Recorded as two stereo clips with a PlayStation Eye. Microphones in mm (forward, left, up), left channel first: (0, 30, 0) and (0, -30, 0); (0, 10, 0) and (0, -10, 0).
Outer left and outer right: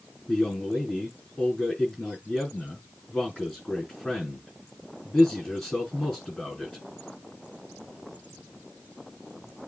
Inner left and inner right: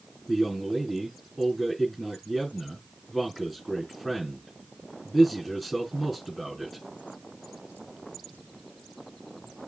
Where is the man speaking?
5° left (ahead or behind), 5 m.